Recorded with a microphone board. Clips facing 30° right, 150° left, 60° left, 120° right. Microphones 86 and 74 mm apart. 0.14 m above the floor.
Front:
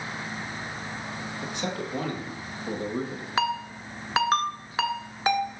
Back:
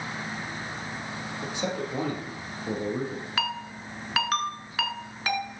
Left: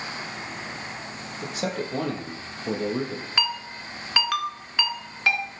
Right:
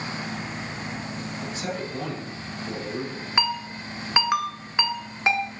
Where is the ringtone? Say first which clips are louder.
Front 6 dB, right 4 dB; 70° right, 1.1 m.